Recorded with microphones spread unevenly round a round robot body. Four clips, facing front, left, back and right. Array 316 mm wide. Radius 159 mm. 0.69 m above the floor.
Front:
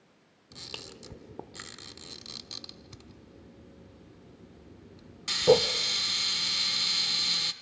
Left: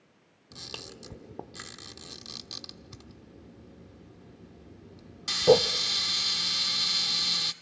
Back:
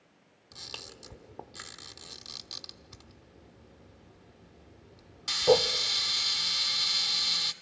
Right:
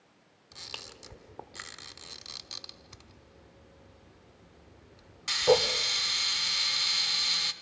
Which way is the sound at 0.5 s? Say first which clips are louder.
Left 3 dB, front 2 dB; 55° left.